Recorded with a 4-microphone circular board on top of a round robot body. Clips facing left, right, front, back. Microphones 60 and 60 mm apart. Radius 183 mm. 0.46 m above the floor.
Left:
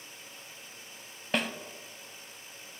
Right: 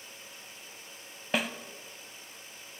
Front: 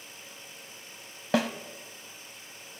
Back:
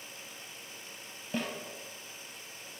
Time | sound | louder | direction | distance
1.3 | a snare drum | even, front 9 dB | 5° right | 1.6 m